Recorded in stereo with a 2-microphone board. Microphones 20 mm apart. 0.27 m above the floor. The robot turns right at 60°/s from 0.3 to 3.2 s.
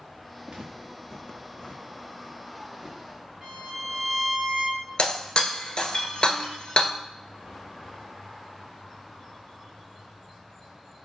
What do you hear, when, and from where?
0.5 s footsteps: 60° right (ahead or behind), 1.1 m; by 3.0 s 30° right (ahead or behind), 1.4 m
3.4 s a violin: 30° right (ahead or behind), 1.9 m
5.0 s breaking glass: 50° left (ahead or behind), 0.7 m